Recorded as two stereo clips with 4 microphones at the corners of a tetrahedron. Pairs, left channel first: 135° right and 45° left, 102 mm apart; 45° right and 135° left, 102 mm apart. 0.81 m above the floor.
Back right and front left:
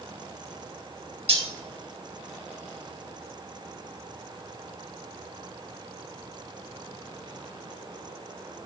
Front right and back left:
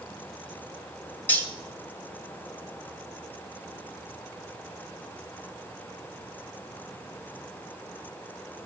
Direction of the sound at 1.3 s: 25° left.